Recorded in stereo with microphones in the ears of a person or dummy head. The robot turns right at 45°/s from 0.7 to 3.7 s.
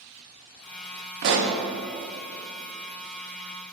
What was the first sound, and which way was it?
A pop, 55° right (ahead or behind).